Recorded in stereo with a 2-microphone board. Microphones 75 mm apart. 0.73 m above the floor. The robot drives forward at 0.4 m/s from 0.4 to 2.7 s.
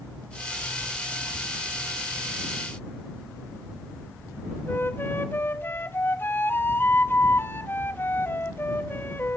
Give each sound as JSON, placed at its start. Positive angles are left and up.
{"t": 4.7, "sound": "a flute", "side_deg": 30, "distance_m": 0.8}